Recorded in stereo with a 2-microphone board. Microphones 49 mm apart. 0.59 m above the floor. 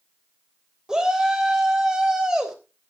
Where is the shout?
10° right (ahead or behind), 3 m.